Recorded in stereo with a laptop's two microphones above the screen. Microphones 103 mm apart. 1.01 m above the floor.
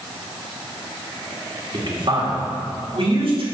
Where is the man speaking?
55° right (ahead or behind), 1.8 m; by 3.5 s 70° right (ahead or behind), 2.5 m.